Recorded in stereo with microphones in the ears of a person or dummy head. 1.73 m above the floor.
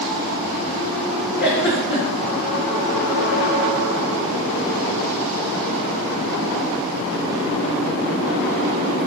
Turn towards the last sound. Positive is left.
turn(degrees=60)  # may be behind; listen again after turning